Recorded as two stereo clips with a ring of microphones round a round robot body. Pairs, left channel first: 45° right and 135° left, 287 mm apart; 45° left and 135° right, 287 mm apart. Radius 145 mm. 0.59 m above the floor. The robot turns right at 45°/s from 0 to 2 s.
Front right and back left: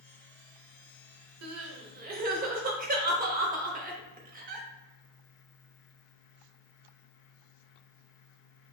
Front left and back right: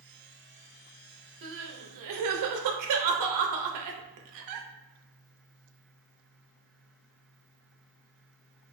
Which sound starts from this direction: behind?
Crying, at 1.4 s.